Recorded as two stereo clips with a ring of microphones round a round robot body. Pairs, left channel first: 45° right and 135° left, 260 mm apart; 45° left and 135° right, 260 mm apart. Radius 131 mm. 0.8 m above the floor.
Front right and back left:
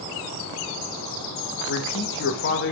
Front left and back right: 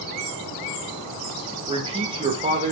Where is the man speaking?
70° right, 1.5 m.